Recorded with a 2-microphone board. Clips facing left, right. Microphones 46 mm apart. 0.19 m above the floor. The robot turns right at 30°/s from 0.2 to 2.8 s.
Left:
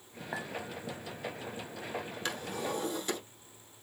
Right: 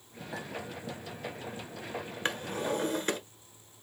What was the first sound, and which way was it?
A clink, 35° left (ahead or behind).